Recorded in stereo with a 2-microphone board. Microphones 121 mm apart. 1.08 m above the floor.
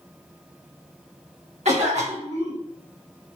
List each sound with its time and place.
1.6 s a cough: 65° right (ahead or behind), 1.4 m